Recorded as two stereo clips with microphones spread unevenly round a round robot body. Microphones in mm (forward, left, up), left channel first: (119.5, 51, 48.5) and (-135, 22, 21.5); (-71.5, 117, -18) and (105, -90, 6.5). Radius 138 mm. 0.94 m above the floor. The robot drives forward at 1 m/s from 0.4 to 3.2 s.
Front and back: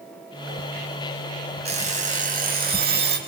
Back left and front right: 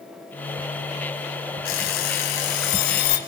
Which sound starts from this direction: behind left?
An alarm clock, at 1.6 s.